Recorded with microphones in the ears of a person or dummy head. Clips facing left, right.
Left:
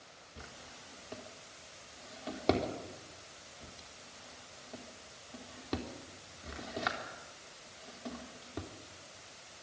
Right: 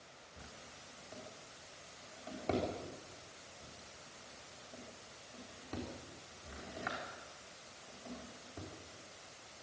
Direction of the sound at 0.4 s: 75° left (ahead or behind).